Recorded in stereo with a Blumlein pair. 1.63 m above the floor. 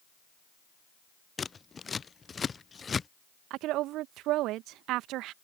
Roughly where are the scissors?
Ahead.